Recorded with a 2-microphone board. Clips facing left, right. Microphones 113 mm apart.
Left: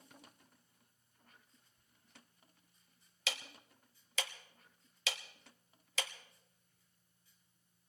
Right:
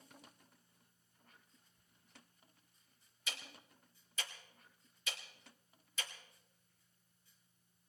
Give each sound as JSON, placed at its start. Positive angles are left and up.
{"t": 3.3, "sound": "ticking", "side_deg": 70, "distance_m": 1.3}